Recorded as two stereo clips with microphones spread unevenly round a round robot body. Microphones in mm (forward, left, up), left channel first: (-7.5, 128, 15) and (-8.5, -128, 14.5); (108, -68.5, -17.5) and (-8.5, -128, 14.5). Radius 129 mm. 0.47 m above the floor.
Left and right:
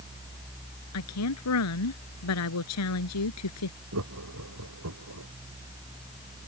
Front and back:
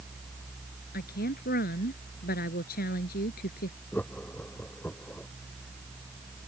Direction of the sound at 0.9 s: 60° left.